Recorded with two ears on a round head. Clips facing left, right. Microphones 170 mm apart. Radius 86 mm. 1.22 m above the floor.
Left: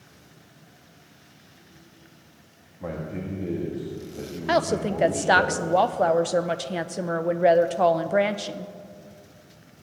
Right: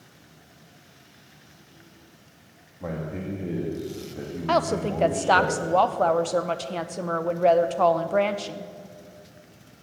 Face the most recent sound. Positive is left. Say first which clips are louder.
# left 1 dB
turn(degrees=10)  # may be behind; listen again after turning